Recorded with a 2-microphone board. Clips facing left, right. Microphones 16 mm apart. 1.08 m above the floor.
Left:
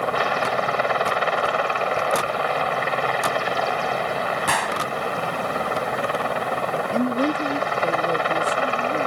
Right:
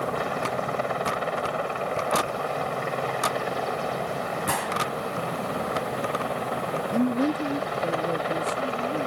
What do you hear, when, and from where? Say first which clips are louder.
0.0 s a helicopter: left 6 dB; 35° left (ahead or behind)
4.5 s a gunshot: left 3 dB; 40° left (ahead or behind)
6.9 s a woman speaking: even; 50° left (ahead or behind)